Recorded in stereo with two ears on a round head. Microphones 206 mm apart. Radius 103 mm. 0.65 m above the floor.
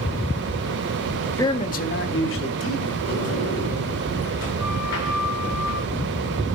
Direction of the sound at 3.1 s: 55° left (ahead or behind).